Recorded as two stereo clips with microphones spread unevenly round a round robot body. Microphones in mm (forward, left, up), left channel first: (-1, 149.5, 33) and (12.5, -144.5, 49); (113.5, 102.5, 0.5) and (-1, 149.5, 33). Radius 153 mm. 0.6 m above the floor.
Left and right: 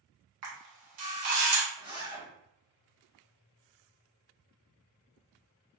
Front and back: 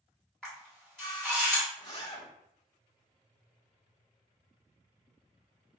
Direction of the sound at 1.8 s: 15° right.